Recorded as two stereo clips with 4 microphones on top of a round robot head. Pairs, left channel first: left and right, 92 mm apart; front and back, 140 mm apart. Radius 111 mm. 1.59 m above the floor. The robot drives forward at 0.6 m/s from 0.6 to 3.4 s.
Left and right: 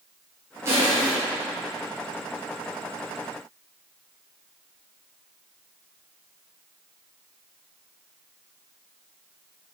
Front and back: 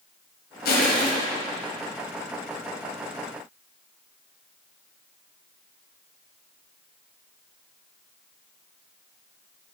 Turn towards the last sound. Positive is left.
turn(degrees=-50)